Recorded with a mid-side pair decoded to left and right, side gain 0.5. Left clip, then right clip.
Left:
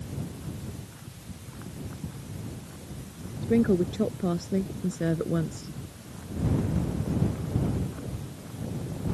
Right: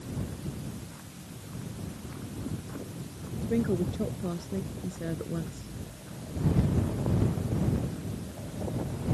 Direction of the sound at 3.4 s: 35° left.